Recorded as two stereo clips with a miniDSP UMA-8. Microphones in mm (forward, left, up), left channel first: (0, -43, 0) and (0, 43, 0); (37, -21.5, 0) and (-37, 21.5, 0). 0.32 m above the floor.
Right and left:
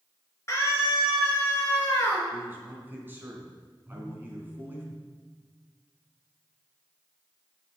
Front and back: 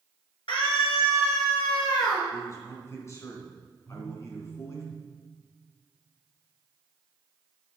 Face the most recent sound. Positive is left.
turn(degrees=45)